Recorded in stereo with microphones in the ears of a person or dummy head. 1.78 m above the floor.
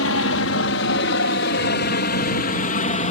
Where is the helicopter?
75° left (ahead or behind); by 3.1 s 40° left (ahead or behind).